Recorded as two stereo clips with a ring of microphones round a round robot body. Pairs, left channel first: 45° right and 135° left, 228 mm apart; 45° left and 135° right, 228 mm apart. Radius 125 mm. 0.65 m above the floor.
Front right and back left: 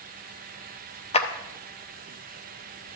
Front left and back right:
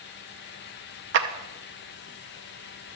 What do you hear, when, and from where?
1.1 s a clap: 110° right, 0.8 m